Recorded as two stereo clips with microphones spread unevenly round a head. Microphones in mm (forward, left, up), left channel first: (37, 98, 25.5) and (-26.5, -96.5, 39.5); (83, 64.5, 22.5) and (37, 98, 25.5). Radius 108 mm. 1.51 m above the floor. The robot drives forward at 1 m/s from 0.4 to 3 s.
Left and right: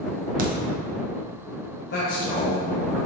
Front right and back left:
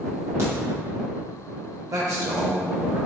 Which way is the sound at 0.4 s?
150° right.